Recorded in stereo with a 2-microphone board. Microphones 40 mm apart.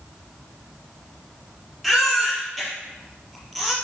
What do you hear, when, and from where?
1.8 s a baby crying: 5° left (ahead or behind), 4 m